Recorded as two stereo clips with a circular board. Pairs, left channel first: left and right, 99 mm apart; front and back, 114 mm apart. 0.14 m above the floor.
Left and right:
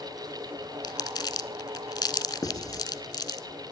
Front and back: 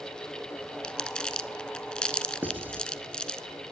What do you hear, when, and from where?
0.8 s crumpling: 80° left, 0.7 m
2.4 s writing: 115° left, 1.5 m